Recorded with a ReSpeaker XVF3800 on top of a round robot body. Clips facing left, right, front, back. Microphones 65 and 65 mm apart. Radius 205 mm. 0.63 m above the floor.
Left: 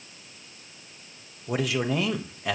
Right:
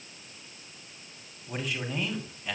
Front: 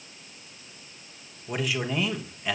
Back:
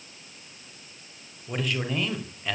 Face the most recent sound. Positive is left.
turn(degrees=85)